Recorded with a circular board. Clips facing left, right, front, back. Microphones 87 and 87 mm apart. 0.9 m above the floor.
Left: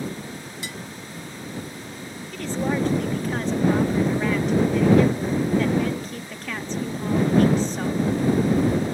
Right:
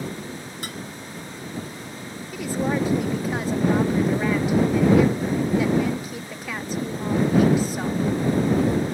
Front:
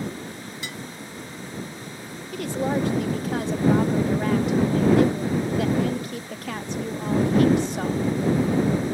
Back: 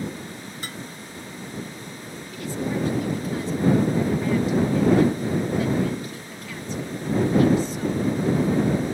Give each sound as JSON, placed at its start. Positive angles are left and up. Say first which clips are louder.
{"t": 0.6, "sound": "dishes clattering", "louder": "right 1 dB, even", "azimuth_deg": -130}
{"t": 2.3, "sound": "a woman speaking", "louder": "right 1 dB, front 3 dB", "azimuth_deg": -10}